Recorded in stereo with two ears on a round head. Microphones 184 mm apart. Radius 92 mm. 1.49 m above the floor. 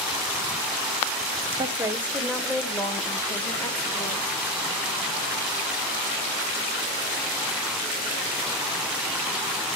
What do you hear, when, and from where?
1.6 s a woman speaking: 20° right (ahead or behind), 0.9 m; by 4.3 s 25° left (ahead or behind), 2 m